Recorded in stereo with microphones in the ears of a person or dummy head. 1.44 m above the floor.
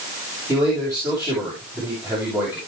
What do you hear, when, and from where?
0.5 s a man speaking: 20° right (ahead or behind), 7.5 m